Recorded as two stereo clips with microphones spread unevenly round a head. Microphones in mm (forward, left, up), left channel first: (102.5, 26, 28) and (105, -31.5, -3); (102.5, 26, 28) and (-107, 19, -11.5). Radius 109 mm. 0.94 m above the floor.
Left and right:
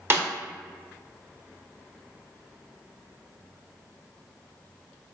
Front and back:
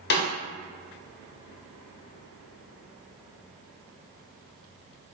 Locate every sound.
0.1 s a snare drum: 25° right, 0.9 m